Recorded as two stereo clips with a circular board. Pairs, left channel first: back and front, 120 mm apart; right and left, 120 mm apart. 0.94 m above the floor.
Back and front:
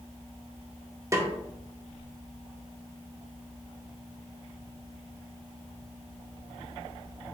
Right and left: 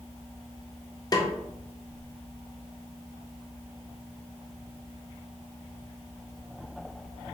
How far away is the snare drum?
About 0.6 m.